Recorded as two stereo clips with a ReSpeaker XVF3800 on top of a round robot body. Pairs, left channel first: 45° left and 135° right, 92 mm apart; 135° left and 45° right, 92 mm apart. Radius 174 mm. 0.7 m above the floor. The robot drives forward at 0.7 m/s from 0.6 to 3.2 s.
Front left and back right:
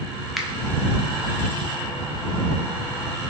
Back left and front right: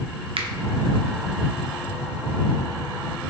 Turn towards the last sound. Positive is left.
turn(degrees=-165)